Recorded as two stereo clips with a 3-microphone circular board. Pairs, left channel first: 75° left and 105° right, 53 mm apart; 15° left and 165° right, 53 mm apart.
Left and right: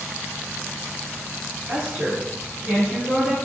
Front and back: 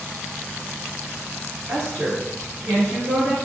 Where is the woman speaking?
160° right, 2.0 m.